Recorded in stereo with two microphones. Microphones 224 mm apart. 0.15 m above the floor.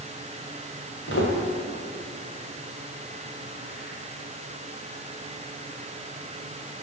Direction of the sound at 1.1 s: 60° left (ahead or behind).